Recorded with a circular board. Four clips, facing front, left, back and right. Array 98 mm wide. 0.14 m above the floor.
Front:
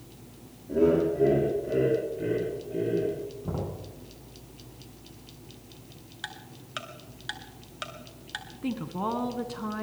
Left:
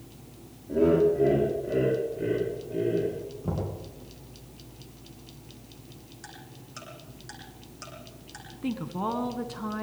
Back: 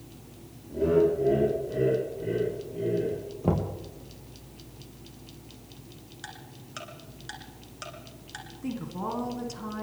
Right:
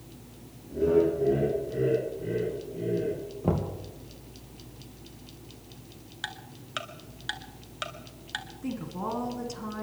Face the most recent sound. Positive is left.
turn(degrees=45)